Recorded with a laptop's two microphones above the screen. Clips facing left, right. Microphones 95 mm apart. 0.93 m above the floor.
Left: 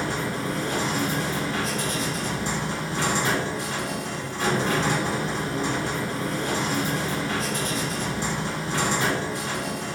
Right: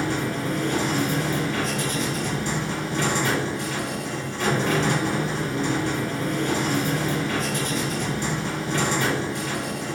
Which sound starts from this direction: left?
A machine running, at 0.0 s.